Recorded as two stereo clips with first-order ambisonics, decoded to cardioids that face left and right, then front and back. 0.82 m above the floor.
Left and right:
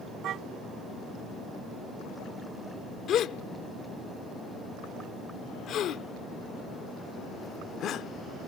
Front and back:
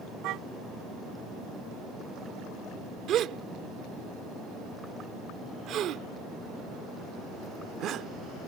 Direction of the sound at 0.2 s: 145° right.